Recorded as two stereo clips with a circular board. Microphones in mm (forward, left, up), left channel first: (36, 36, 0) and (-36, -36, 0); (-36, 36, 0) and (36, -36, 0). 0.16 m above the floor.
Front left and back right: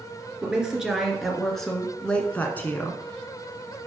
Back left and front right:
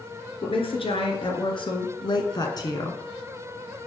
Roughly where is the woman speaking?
Behind left.